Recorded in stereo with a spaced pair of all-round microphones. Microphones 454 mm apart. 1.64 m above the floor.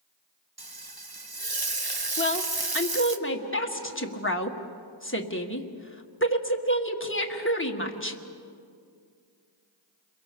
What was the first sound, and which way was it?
Frying, 50° right (ahead or behind).